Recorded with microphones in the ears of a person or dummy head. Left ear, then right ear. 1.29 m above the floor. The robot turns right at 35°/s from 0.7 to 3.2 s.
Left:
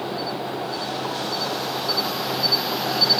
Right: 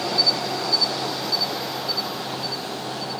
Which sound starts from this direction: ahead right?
An insect, at 0.0 s.